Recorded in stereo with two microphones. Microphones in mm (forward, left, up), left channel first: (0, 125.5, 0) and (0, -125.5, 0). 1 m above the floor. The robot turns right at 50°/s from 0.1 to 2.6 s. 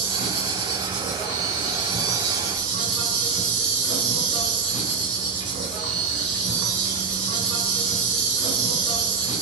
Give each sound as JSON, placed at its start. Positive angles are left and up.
{"t": 0.0, "sound": "an insect", "azimuth_deg": -50, "distance_m": 1.1}